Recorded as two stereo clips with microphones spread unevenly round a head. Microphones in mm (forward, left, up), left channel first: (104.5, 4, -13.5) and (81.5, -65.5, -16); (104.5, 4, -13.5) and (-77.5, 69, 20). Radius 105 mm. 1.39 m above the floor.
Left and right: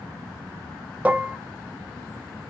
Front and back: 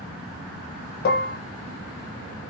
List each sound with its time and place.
1.1 s dishes clattering: 45° right, 0.6 m